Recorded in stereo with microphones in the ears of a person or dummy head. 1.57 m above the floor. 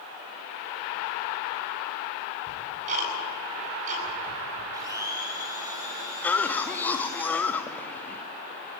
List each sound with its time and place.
2.5 s ticking: 45° right (ahead or behind), 8.5 m
4.7 s a blender: 20° right (ahead or behind), 3 m
6.2 s a cough: 10° left (ahead or behind), 1.1 m